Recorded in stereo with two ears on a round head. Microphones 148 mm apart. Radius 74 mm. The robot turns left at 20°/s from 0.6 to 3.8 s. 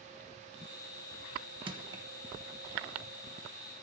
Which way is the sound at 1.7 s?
30° right (ahead or behind).